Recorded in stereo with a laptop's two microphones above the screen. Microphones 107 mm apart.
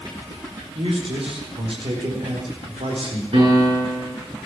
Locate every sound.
0.8 s a man speaking: 70° right (ahead or behind), 4 m
3.3 s a piano: 65° right (ahead or behind), 5.5 m